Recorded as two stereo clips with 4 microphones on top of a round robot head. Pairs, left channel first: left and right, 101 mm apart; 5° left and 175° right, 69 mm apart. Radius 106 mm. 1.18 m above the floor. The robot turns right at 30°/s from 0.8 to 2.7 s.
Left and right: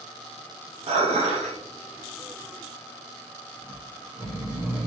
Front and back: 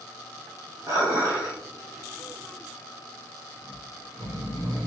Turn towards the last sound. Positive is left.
turn(degrees=-160)